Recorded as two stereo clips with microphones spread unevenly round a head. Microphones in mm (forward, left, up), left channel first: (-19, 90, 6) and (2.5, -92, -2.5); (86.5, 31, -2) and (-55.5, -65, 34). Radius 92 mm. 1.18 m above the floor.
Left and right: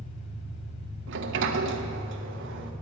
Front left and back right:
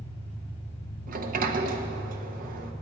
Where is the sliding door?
105° right, 1.2 m.